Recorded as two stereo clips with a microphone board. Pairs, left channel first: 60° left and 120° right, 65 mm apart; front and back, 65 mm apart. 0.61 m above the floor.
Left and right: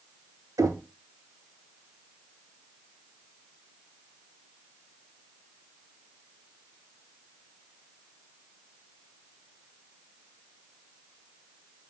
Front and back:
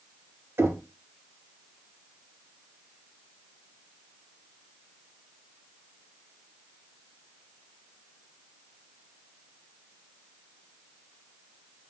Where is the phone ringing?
I don't hear a phone ringing.